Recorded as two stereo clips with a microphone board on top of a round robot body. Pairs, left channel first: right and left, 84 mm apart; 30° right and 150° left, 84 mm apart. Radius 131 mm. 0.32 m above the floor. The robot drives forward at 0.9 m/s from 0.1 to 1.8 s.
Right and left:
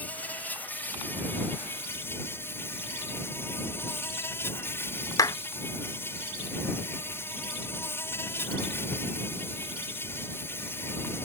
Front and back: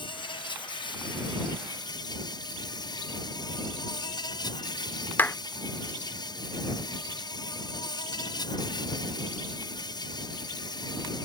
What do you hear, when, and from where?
0.0 s an insect: 20° right; by 11.3 s 35° right
5.2 s a clap: 90° right